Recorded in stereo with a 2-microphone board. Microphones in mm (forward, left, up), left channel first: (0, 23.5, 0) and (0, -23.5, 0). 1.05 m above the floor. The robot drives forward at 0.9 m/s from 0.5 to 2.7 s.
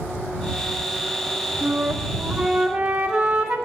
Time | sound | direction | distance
1.6 | a flute | 25° right (ahead or behind) | 0.7 m